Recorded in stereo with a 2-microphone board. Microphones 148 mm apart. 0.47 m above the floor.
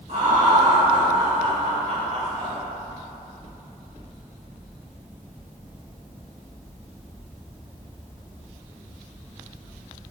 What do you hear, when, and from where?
0.1 s laughter: 55° right (ahead or behind), 1.8 m